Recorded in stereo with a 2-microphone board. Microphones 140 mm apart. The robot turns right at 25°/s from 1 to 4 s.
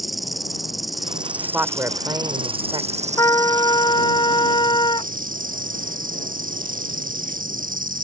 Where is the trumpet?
25° left (ahead or behind); by 5.1 s 35° left (ahead or behind).